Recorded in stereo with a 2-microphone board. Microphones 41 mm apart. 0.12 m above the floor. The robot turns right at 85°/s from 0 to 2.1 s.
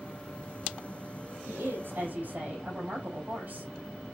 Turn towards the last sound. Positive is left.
turn(degrees=-45)